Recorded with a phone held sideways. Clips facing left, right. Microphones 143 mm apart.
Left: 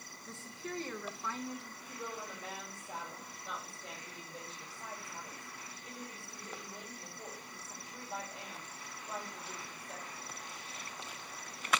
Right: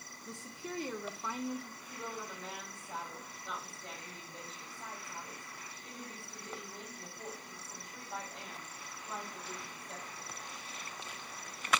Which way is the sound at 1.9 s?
10° left (ahead or behind).